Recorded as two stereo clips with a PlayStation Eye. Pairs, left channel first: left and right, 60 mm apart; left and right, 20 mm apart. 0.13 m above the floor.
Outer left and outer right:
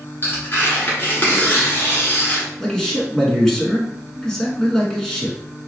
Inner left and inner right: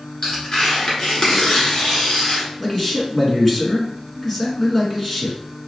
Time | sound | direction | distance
0.2 | tearing paper | 35° left (ahead or behind) | 1.4 m
2.6 | a man speaking | 10° left (ahead or behind) | 1.1 m